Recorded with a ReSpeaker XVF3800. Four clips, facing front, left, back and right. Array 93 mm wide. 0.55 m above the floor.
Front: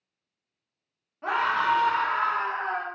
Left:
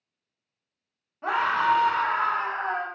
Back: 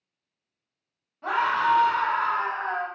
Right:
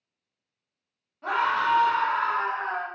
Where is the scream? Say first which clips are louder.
Left 1 dB, back 1 dB; 50° left, 0.6 m.